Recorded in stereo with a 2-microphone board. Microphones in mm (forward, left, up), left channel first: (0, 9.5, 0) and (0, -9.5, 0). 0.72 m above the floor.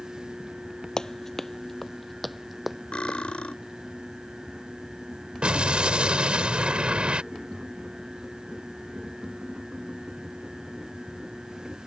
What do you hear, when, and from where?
1.0 s running footsteps: 30° left (ahead or behind); by 3.2 s 15° right (ahead or behind)
2.9 s cutlery clinking: 80° left
5.4 s an explosion: 60° right (ahead or behind)
7.3 s tapping: 55° right (ahead or behind)